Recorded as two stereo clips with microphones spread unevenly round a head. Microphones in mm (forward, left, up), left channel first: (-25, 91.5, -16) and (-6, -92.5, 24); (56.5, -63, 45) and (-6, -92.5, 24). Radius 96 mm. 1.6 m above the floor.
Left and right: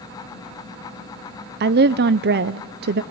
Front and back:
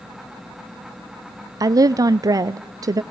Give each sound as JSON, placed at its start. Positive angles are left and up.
{"t": 1.6, "sound": "a woman speaking", "azimuth_deg": -110, "distance_m": 0.5}